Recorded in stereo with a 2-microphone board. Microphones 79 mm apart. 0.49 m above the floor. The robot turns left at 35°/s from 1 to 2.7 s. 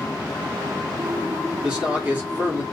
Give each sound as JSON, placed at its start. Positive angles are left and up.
{"t": 1.6, "sound": "a man speaking", "azimuth_deg": -20, "distance_m": 1.1}